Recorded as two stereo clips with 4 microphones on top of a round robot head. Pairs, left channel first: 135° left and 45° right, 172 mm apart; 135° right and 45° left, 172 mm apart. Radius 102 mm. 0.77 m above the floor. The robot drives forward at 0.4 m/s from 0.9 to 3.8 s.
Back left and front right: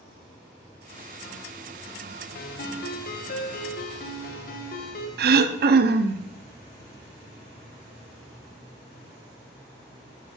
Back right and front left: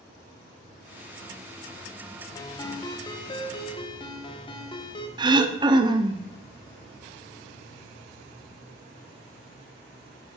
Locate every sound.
2.4 s a ringtone: 155° left, 1.0 m; by 5.1 s 165° left, 1.5 m
5.2 s throat clearing: 20° right, 0.7 m